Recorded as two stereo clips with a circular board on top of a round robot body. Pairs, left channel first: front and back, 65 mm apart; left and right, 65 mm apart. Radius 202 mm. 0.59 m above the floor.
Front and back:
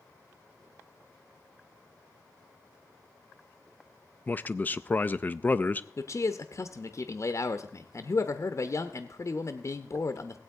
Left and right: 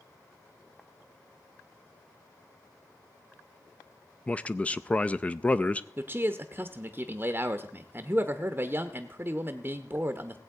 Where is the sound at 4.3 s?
35° left, 0.6 m.